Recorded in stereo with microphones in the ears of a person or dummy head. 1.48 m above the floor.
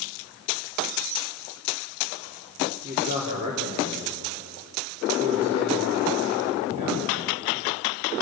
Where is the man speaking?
40° right (ahead or behind), 3.5 m.